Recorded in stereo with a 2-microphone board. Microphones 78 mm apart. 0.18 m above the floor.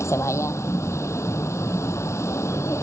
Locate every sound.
0.0 s a vehicle: 40° left (ahead or behind)